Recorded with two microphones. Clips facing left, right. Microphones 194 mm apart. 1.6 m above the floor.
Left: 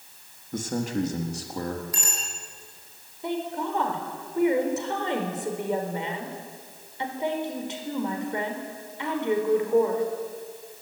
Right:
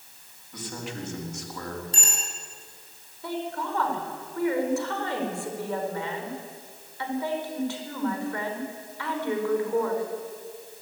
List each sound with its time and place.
0.5 s a man speaking: 45° left (ahead or behind), 3.5 m; by 1.8 s 30° left (ahead or behind), 4 m
1.9 s a bicycle bell: 30° right (ahead or behind), 9.5 m
3.2 s a woman speaking: 20° left (ahead or behind), 5 m